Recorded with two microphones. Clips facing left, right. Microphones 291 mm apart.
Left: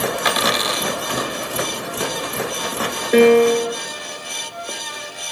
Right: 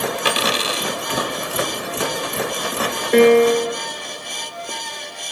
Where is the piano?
Centre (ahead or behind), 2.5 m.